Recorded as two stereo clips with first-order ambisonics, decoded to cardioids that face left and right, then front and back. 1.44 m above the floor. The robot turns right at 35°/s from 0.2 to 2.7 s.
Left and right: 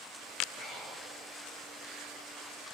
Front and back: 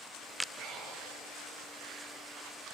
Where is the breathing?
130° left, 6 m; by 1.1 s 150° left, 6 m.